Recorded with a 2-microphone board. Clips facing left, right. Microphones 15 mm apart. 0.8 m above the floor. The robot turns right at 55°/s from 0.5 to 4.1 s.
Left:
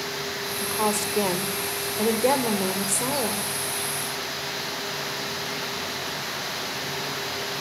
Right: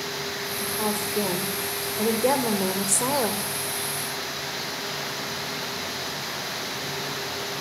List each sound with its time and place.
0.6 s a woman speaking: 75° left, 3 m; by 3.5 s 125° right, 3 m